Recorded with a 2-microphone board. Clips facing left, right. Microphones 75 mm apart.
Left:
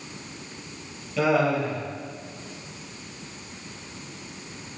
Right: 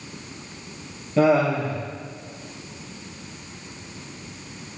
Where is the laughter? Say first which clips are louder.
Right 3 dB; 35° right (ahead or behind), 4 m.